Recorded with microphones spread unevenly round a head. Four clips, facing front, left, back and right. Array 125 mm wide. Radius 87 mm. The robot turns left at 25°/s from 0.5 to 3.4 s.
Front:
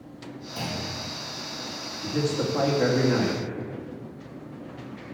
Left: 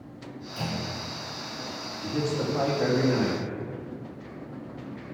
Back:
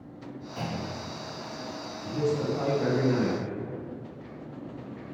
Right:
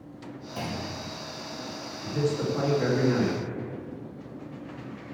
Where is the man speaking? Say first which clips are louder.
Right 1 dB, front 1 dB; 35° left, 2.5 m; by 3.4 s straight ahead, 2.5 m.